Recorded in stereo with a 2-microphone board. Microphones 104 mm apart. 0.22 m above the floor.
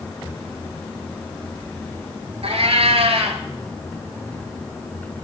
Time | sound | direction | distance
2.4 | a cat meowing | 70° right (ahead or behind) | 2 m